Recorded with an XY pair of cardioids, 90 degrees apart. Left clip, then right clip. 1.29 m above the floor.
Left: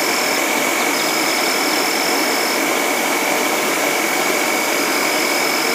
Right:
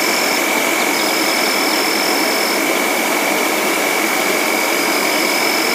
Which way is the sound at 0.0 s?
15° right.